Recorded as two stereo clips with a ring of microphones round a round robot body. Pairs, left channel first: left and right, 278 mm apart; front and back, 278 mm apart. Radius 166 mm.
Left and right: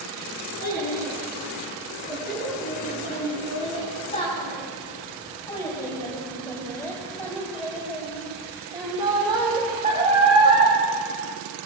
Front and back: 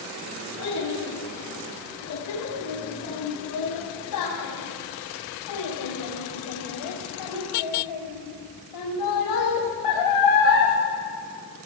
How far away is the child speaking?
About 6.5 m.